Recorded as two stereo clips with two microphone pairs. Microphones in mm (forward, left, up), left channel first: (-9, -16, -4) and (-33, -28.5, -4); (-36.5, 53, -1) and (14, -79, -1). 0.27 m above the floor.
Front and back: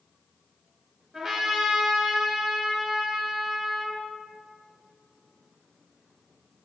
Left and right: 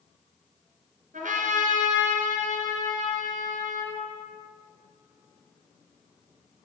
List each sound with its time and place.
1.1 s a trumpet: 85° right, 2.5 m